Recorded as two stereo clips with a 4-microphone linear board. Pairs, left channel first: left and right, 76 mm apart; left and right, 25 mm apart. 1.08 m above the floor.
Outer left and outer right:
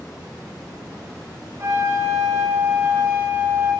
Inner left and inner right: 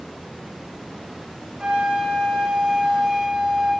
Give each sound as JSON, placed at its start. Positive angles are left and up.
{"t": 1.6, "sound": "a flute", "side_deg": -35, "distance_m": 3.0}